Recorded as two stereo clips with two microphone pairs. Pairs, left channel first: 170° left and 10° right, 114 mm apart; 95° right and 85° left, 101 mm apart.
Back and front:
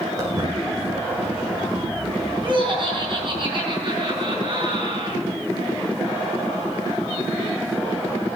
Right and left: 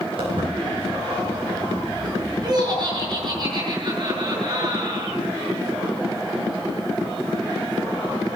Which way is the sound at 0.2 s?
50° left.